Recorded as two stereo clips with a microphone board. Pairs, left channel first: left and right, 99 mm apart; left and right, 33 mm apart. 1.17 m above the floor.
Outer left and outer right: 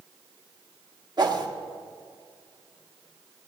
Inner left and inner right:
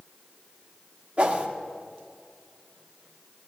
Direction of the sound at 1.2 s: 45° right (ahead or behind).